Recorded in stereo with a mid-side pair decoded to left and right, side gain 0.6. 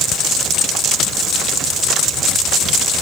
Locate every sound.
Only background noise.